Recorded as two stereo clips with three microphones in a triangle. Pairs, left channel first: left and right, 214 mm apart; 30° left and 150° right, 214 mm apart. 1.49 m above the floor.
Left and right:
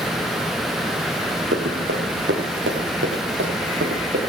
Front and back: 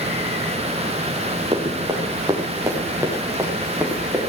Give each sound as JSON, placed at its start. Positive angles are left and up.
{"t": 1.5, "sound": "running footsteps", "azimuth_deg": -80, "distance_m": 7.0}